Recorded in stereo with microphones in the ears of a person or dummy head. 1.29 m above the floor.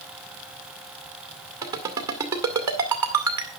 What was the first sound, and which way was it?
A ringtone, 15° right (ahead or behind).